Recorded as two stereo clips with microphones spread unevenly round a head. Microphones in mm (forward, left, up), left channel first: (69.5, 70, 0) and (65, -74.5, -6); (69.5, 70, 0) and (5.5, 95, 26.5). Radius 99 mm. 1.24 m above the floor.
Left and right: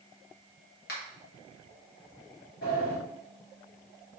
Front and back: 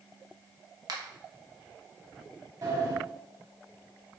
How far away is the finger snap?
About 1.4 m.